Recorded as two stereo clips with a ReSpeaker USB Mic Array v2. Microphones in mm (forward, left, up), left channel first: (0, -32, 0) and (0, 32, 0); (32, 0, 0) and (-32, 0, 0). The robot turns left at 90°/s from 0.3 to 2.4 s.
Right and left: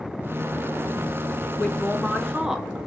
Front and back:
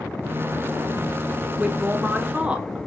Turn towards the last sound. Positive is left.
turn(degrees=155)